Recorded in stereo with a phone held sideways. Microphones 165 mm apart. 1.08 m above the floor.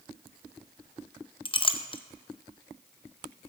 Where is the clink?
30° left (ahead or behind), 0.6 m.